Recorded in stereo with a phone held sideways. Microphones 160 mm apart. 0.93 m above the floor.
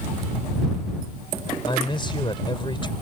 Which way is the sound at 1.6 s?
30° left (ahead or behind).